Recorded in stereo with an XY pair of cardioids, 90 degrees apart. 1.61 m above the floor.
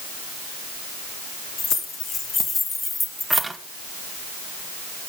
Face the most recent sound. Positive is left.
turn(degrees=-25)